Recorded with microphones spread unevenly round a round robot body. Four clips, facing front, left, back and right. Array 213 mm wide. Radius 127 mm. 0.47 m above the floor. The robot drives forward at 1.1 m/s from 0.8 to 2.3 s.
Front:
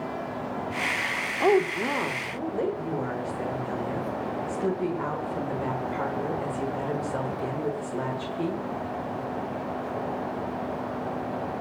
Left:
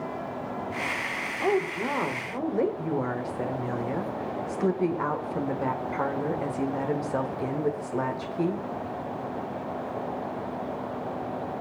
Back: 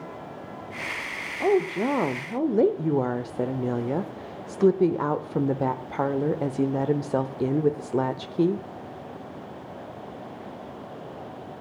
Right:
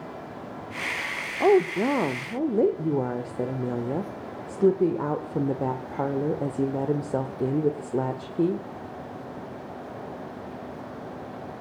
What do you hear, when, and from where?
1.4 s a woman speaking: 85° right, 0.9 m; by 8.7 s 145° right, 1.3 m